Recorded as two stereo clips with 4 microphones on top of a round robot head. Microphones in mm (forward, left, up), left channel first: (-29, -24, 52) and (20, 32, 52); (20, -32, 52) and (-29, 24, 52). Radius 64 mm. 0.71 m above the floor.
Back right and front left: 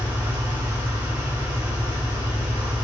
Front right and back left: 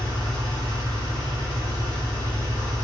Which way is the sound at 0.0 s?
15° right.